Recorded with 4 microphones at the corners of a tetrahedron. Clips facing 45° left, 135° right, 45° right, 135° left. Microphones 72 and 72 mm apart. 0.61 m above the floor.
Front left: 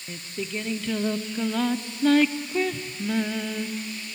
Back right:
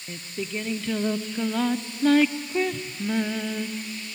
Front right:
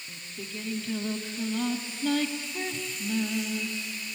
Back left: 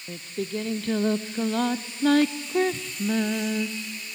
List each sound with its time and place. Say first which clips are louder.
0.1 s singing: even, back left 12 dB; 135° left, 0.6 m